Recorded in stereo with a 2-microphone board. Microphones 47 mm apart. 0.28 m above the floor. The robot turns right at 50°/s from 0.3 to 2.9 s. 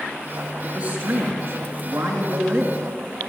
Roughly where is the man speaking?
Behind right.